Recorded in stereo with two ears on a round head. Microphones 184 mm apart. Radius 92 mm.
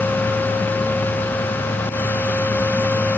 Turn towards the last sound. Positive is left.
No sound to turn to.